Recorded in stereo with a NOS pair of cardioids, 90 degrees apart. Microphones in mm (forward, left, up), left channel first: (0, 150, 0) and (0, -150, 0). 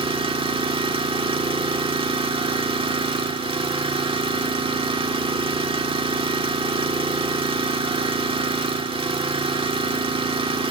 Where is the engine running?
15° right, 2 m.